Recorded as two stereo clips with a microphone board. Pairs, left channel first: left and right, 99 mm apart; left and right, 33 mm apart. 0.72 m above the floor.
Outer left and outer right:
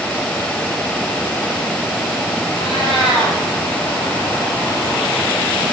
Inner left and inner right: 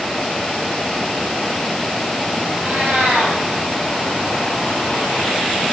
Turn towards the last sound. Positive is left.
turn(degrees=-60)  # may be behind; listen again after turning